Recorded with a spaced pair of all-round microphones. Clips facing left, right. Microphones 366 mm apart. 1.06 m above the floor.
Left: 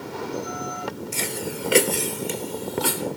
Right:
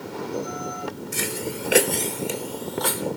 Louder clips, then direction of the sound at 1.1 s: Right 1 dB; 25° right (ahead or behind).